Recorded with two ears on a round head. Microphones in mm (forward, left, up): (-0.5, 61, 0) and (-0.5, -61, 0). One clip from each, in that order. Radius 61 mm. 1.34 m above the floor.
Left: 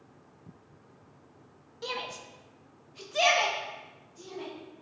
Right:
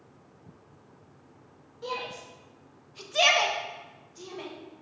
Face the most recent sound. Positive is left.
turn(degrees=-45)  # may be behind; listen again after turning